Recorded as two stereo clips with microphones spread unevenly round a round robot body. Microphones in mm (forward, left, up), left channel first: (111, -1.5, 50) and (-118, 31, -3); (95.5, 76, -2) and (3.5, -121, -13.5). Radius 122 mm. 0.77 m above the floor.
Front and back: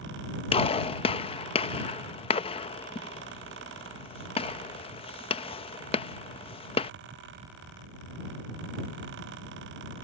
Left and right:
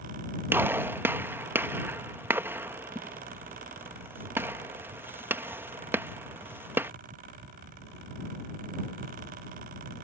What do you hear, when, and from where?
0.5 s a gunshot: 65° right